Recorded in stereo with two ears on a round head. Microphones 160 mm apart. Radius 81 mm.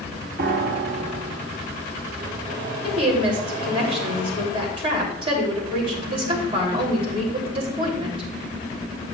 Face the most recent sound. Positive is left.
turn(degrees=-30)  # may be behind; listen again after turning